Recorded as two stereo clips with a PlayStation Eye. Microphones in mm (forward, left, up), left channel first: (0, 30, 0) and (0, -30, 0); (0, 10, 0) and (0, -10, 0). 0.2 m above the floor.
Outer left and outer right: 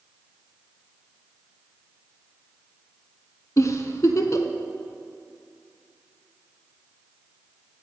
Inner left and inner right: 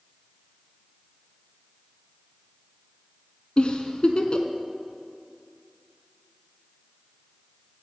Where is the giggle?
55° left (ahead or behind), 0.6 m.